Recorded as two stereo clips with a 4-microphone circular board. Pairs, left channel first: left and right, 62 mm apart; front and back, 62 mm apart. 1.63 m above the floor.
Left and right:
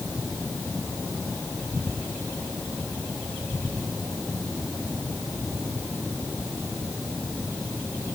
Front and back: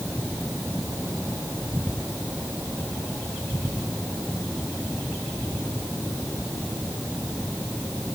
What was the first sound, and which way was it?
Only background noise.